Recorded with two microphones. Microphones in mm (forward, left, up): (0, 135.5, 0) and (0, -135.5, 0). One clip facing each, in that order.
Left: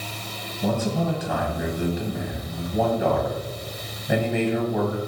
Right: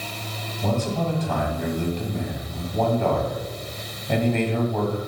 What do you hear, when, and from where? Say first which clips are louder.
0.6 s a man speaking: left 1 dB; 10° left (ahead or behind), 2 m